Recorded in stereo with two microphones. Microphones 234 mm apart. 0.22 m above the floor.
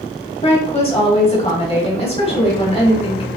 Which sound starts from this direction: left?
A woman speaking, at 0.4 s.